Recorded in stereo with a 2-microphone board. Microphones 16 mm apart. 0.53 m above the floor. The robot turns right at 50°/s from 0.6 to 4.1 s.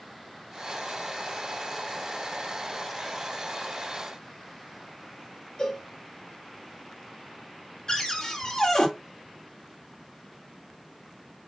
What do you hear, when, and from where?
5.6 s a cowbell: 35° left (ahead or behind), 1.4 m
7.9 s a cupboard door: 40° left (ahead or behind), 1.7 m